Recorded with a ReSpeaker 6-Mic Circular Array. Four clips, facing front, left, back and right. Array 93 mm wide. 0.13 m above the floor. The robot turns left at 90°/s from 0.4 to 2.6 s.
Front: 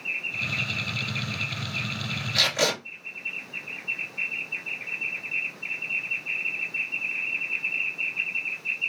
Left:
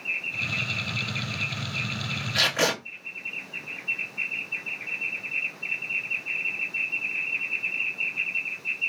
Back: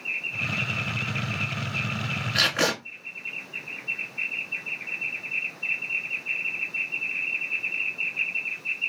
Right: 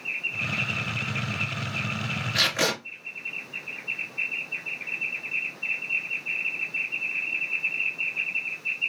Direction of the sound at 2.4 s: 175° right.